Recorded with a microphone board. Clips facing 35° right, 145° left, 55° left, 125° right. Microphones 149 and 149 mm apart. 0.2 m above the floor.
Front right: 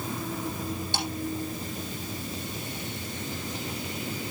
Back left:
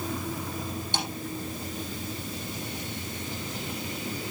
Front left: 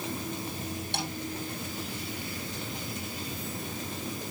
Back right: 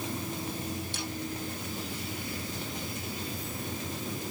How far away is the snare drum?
About 5.5 m.